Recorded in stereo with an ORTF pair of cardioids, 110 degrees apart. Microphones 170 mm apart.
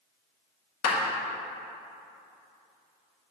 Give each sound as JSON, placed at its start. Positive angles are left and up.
{"t": 0.8, "sound": "a clap", "azimuth_deg": 55, "distance_m": 1.8}